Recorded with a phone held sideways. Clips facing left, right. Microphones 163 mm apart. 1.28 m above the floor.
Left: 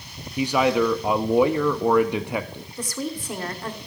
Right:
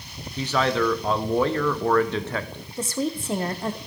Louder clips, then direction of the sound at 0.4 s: Left 3 dB; 10° left (ahead or behind).